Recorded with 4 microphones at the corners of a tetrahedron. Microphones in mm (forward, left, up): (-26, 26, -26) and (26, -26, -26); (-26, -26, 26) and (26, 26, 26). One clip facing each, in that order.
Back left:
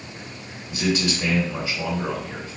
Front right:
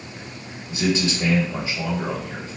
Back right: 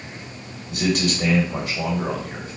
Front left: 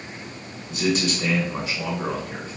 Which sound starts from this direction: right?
A man speaking, at 0.7 s.